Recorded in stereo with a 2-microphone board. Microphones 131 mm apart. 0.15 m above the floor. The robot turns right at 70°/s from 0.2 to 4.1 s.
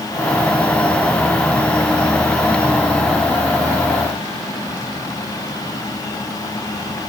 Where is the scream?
No scream in this recording.